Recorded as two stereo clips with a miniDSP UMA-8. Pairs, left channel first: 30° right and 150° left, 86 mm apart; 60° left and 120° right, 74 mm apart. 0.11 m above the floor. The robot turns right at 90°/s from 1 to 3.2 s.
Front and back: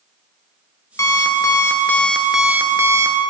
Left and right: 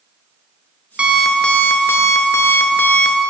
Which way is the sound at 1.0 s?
55° right.